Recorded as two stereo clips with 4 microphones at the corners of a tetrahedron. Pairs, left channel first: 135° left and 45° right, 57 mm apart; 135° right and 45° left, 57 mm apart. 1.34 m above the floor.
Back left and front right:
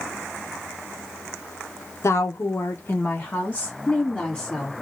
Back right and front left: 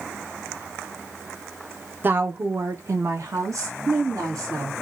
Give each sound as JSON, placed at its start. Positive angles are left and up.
{"t": 2.0, "sound": "a woman speaking", "azimuth_deg": 100, "distance_m": 0.8}